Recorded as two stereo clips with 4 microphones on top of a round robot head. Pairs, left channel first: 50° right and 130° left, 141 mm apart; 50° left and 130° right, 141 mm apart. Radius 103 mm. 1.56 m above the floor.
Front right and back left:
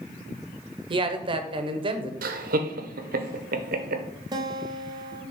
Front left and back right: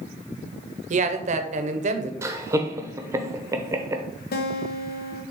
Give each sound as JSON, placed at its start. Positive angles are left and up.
{"t": 0.9, "sound": "a man speaking", "azimuth_deg": -170, "distance_m": 0.7}
{"t": 2.2, "sound": "laughter", "azimuth_deg": 155, "distance_m": 0.8}
{"t": 4.3, "sound": "a guitar", "azimuth_deg": 65, "distance_m": 0.9}